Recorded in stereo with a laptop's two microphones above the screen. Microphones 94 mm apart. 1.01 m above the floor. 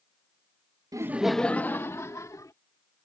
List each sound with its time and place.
0.9 s laughter: 40° right (ahead or behind); by 2.5 s 40° left (ahead or behind)